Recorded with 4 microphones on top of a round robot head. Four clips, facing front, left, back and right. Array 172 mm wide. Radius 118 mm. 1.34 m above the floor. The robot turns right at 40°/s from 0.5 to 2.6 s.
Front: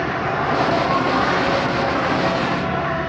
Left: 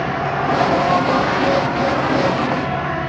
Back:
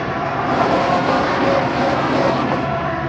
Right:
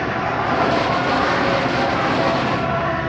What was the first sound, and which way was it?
An insect, 130° left.